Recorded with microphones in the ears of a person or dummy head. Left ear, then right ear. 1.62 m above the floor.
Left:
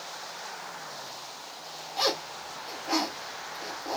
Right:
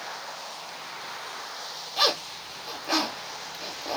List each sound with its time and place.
2.0 s a zipper: 20° right (ahead or behind), 1.3 m